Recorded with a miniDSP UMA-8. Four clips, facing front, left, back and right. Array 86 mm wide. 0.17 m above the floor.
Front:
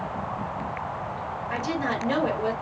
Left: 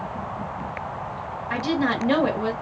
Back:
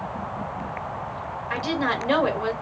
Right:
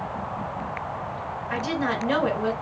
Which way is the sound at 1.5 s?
150° left.